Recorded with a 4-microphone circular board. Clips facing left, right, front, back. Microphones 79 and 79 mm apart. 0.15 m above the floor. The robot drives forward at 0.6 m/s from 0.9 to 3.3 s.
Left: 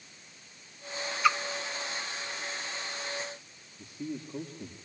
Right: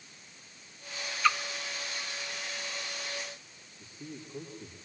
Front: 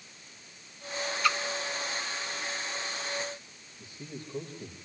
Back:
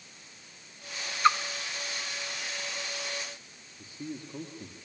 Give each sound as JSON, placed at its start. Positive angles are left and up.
{"t": 1.2, "sound": "a splash", "azimuth_deg": 160, "distance_m": 0.8}
{"t": 3.8, "sound": "a man speaking", "azimuth_deg": 115, "distance_m": 5.0}